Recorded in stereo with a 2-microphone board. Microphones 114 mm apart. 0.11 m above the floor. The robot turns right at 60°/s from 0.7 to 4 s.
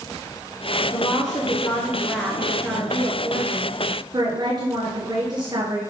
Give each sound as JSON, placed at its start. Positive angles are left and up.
{"t": 0.9, "sound": "a woman speaking", "azimuth_deg": 90, "distance_m": 1.5}